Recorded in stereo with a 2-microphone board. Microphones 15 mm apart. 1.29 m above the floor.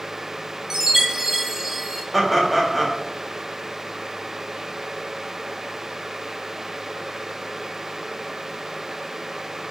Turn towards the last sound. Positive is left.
turn(degrees=10)  # may be behind; listen again after turning